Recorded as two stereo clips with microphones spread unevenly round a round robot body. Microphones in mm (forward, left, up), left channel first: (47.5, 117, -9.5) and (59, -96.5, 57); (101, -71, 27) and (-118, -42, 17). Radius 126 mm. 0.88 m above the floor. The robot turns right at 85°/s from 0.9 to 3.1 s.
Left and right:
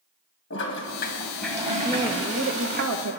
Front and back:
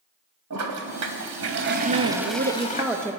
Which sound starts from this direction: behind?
A woman speaking, at 1.8 s.